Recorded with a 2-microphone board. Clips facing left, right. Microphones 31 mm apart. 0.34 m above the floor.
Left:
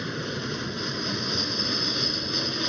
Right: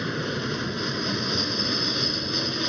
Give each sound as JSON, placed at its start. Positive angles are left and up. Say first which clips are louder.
{"t": 0.0, "sound": "an aircraft", "louder": "right 3 dB", "side_deg": -15}